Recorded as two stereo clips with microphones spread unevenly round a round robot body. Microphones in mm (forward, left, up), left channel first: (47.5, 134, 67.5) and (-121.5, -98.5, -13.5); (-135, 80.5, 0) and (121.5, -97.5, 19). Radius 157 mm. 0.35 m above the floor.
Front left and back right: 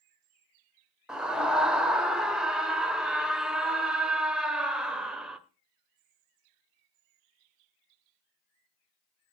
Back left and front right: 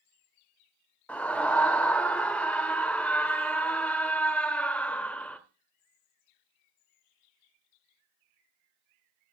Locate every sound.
1.1 s a scream: 145° right, 0.9 m